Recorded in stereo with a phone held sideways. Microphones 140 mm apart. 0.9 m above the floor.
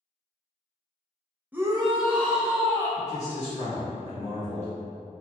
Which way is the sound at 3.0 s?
55° left (ahead or behind).